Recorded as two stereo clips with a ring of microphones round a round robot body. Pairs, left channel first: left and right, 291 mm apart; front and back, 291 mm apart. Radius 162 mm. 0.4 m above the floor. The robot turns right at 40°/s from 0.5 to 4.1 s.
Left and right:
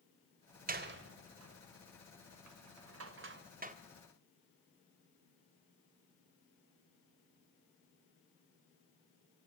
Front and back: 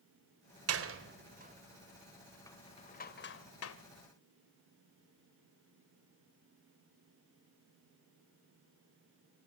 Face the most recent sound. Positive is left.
turn(degrees=-15)